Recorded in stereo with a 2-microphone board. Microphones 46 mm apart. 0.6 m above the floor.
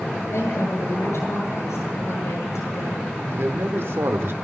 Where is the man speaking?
60° right (ahead or behind), 1.5 m.